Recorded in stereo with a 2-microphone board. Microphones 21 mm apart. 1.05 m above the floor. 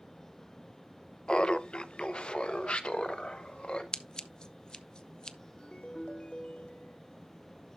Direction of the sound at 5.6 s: 55° left (ahead or behind).